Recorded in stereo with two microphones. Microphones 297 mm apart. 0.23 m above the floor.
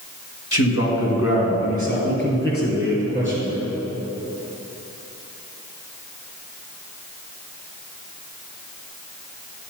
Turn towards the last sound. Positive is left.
turn(degrees=25)  # may be behind; listen again after turning